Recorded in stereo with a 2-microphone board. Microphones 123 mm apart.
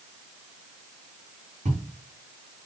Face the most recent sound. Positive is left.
turn(degrees=-75)  # may be behind; listen again after turning